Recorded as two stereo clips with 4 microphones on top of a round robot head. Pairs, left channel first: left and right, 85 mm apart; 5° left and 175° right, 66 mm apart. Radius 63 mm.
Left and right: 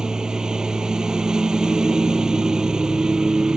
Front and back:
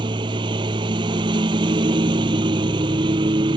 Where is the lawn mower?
175° right.